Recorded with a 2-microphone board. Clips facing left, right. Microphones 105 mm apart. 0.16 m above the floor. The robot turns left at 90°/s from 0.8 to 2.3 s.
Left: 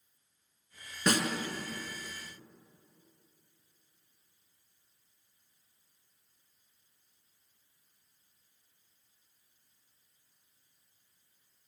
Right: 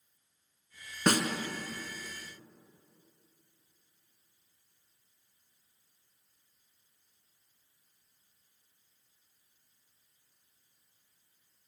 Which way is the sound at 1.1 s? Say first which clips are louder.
Right 2 dB; 50° right (ahead or behind).